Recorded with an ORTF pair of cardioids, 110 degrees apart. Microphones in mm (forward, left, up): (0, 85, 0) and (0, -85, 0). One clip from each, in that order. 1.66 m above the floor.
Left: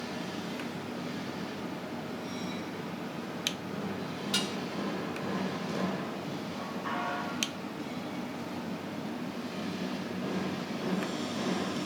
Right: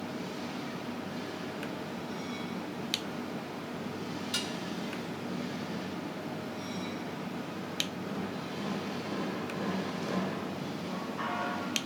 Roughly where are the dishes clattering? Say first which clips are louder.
Left 3 dB; ahead.